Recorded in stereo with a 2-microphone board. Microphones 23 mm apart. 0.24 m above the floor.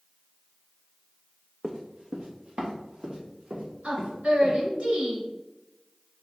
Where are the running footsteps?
30° right (ahead or behind), 1.0 m; by 4.5 s 45° right (ahead or behind), 4.5 m.